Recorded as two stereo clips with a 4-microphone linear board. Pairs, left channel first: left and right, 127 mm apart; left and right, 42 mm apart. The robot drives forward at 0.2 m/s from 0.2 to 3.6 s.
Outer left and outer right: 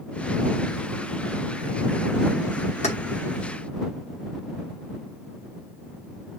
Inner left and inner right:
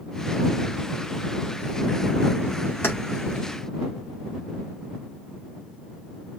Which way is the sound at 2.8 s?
60° left (ahead or behind).